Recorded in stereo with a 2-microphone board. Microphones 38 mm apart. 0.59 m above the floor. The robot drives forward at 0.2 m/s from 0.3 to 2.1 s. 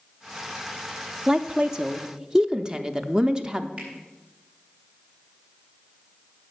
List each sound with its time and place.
1.3 s a woman speaking: 25° right (ahead or behind), 0.6 m
3.8 s a finger snap: 35° right (ahead or behind), 4 m